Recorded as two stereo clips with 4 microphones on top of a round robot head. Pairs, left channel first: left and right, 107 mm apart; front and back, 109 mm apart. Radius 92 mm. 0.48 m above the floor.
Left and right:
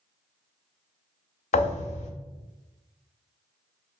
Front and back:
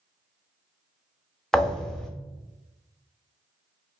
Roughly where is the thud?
Left.